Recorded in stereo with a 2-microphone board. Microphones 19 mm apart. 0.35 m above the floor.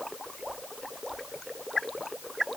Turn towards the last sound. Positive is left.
No sound to turn to.